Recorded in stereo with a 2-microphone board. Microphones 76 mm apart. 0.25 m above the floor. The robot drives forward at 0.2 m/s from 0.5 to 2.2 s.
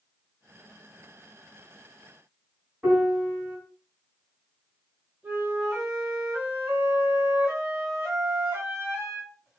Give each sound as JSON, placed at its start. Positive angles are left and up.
{"t": 2.8, "sound": "a piano", "side_deg": -15, "distance_m": 1.7}
{"t": 5.2, "sound": "a flute", "side_deg": -25, "distance_m": 1.8}